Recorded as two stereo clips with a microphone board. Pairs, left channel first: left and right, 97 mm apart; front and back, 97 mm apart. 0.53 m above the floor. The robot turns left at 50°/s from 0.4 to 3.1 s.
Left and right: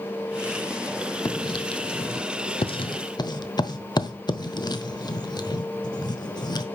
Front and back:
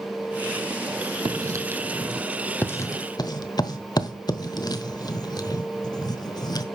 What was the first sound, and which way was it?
Writing, 140° left.